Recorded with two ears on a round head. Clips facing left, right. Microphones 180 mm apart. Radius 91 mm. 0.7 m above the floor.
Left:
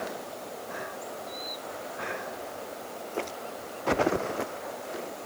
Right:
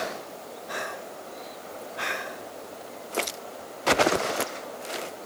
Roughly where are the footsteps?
No footsteps in this recording.